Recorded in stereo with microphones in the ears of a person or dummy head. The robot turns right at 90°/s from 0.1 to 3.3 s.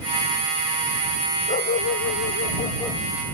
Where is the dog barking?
35° left; by 3.0 s 175° left.